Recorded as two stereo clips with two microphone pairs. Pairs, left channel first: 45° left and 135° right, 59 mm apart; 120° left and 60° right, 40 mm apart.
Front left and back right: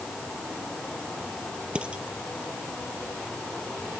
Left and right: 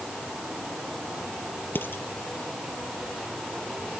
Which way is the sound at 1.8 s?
150° left.